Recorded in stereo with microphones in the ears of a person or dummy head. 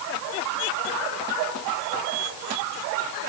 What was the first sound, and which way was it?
Only background noise.